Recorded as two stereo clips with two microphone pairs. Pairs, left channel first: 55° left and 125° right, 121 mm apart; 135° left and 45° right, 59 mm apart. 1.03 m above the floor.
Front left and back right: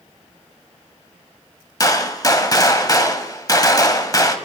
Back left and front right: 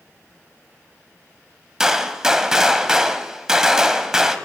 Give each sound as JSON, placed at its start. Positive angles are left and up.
{"t": 1.8, "sound": "a gunshot", "azimuth_deg": 25, "distance_m": 1.0}